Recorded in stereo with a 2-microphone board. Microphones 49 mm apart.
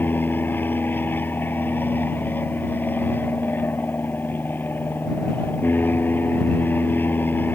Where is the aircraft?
45° left (ahead or behind).